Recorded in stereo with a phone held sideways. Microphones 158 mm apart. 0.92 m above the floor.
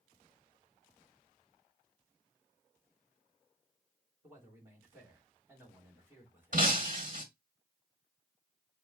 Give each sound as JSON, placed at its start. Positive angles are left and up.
{"t": 4.2, "sound": "a man speaking", "side_deg": -15, "distance_m": 2.5}
{"t": 6.5, "sound": "breaking glass", "side_deg": -55, "distance_m": 1.4}